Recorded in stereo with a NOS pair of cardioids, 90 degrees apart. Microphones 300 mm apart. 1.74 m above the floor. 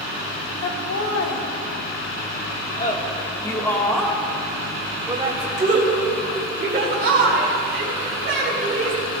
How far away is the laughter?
About 2.5 m.